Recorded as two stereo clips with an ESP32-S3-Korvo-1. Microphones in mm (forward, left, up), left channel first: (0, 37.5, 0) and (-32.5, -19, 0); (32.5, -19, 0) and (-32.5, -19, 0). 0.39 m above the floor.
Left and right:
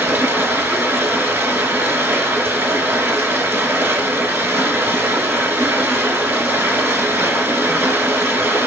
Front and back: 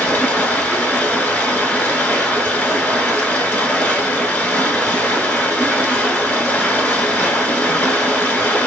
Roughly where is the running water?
Ahead right.